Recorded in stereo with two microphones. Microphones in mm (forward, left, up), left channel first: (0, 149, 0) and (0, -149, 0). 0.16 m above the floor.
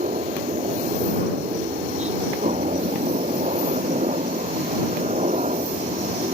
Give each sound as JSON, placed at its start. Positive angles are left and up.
{"t": 0.0, "sound": "a helicopter", "side_deg": -20}